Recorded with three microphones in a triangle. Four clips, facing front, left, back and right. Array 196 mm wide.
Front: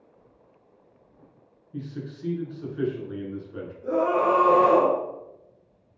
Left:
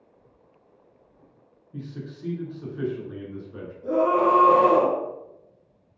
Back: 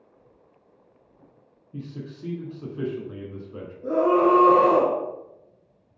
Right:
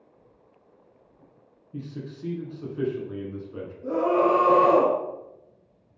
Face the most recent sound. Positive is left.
turn(degrees=-165)